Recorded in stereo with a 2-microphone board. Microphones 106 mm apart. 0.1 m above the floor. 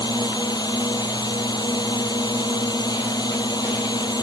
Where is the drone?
40° left (ahead or behind).